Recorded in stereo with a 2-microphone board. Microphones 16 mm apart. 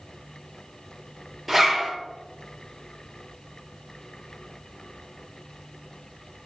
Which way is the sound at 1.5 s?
Centre (ahead or behind).